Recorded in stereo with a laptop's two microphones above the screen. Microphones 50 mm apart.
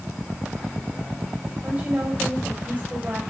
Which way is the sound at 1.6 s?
35° right (ahead or behind).